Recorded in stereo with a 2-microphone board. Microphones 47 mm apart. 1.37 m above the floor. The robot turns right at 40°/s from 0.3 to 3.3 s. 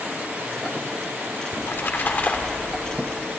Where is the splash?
110° left, 2 m; by 3.0 s 165° left, 2 m.